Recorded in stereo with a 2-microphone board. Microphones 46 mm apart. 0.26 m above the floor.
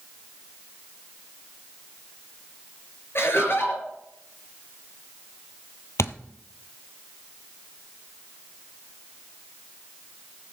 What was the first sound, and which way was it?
Laughter, 60° left (ahead or behind).